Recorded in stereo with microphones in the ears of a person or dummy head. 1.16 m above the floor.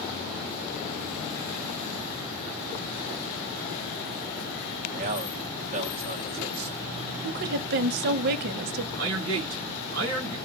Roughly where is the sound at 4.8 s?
Right.